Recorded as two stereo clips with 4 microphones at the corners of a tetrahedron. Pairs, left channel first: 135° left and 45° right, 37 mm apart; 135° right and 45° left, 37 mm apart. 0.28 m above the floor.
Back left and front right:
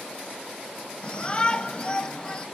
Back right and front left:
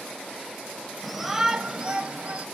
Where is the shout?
140° left, 1.0 m; by 2.5 s 80° left, 1.5 m.